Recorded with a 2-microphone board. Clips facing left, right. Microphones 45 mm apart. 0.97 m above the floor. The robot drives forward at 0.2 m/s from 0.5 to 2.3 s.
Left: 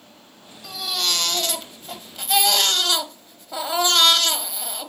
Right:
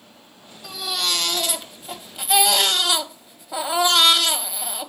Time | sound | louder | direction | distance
0.6 | a baby crying | even | 5° right (ahead or behind) | 0.8 m